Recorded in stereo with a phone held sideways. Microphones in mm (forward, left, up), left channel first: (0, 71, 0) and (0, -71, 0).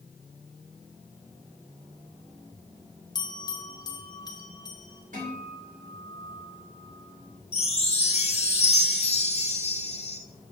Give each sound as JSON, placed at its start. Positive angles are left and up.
{"t": 3.1, "sound": "a bell", "side_deg": 30, "distance_m": 1.3}
{"t": 5.1, "sound": "a guitar", "side_deg": -75, "distance_m": 3.5}
{"t": 7.5, "sound": "a chime", "side_deg": 50, "distance_m": 0.9}